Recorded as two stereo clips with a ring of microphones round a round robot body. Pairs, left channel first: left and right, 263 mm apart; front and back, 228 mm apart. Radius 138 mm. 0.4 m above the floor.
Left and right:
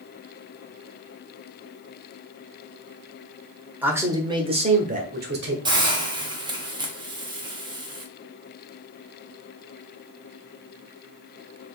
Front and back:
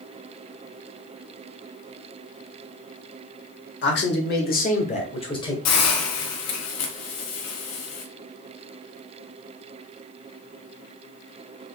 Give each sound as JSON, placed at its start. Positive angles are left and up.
{"t": 3.8, "sound": "a man speaking", "azimuth_deg": -10, "distance_m": 1.3}
{"t": 5.7, "sound": "a hiss", "azimuth_deg": -15, "distance_m": 1.1}